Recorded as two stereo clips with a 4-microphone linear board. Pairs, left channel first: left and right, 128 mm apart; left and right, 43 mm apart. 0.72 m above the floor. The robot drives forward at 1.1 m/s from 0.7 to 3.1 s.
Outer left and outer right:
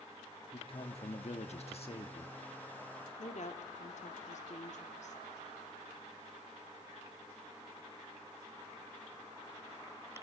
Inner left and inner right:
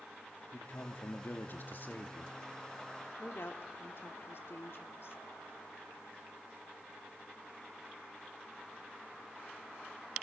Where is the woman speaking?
65° left (ahead or behind), 1.8 m.